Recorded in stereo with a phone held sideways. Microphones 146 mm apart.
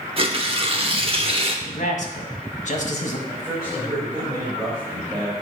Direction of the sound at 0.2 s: 40° right (ahead or behind).